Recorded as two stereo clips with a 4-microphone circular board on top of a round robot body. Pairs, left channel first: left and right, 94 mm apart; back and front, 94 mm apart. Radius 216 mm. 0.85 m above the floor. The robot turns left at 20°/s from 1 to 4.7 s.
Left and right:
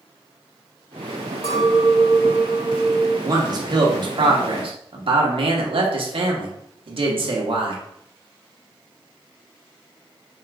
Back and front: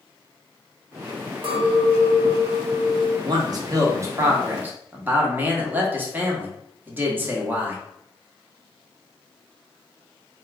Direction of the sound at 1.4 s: 30° left.